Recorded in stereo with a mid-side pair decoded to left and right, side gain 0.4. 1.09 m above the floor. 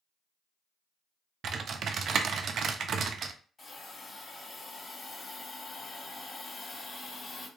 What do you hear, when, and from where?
1.4 s typing on a keyboard: 60° right, 0.6 m
3.6 s a hiss: 40° left, 2.5 m